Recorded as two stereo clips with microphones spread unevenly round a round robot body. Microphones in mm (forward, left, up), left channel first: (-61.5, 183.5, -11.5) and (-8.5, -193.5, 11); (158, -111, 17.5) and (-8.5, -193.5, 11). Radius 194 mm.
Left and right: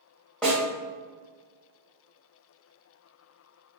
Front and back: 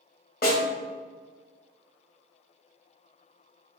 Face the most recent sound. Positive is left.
turn(degrees=15)